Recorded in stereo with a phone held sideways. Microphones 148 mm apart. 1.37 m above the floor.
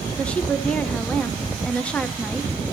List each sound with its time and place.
0.2 s a woman speaking: 10° left (ahead or behind), 0.8 m